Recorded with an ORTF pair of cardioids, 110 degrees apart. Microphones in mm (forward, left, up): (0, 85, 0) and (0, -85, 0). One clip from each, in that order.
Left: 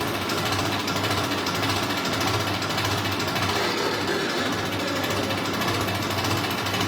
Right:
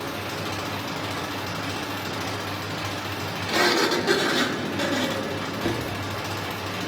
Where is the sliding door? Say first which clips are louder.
Right 3 dB; 50° right, 2 m.